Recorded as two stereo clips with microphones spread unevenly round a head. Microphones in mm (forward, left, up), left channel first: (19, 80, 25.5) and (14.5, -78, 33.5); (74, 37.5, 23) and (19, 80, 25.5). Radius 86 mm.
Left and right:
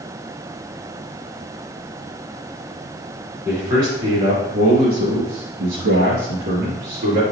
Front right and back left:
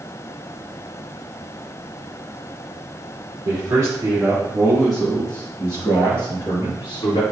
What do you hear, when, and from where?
3.5 s a man speaking: 165° right, 3.5 m; by 7.2 s 50° right, 3 m